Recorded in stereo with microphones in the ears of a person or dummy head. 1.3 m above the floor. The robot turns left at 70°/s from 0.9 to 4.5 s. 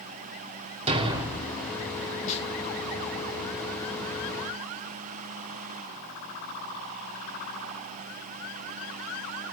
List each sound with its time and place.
0.9 s a thud: 145° right, 1.1 m; by 1.5 s 175° left, 1.1 m
2.3 s a snare drum: 40° left (ahead or behind), 1.8 m; by 2.5 s 25° left (ahead or behind), 1.8 m